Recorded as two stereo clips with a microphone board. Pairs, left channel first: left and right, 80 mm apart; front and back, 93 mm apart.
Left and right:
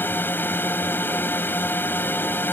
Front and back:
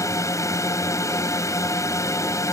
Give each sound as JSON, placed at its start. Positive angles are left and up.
{"t": 0.0, "sound": "a drone", "azimuth_deg": 40}